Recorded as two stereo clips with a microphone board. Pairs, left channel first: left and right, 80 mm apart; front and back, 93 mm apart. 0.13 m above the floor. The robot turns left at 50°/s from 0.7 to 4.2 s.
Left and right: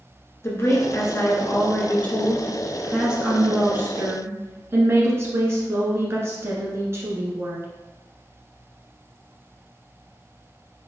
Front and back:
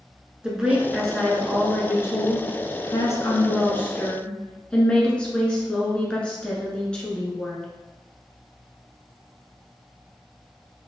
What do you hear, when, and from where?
0.4 s a woman speaking: 105° left, 1.2 m; by 7.7 s 70° right, 1.2 m